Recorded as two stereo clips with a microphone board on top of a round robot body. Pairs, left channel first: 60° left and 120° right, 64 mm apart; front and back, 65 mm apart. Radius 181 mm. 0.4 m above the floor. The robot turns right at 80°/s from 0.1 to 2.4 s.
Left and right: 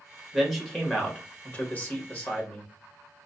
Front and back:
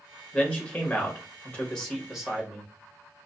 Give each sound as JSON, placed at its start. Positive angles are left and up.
{"t": 0.3, "sound": "a man speaking", "azimuth_deg": -45, "distance_m": 1.5}